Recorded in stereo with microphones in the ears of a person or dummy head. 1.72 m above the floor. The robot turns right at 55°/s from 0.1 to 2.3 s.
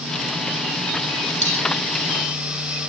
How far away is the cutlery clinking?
About 4 m.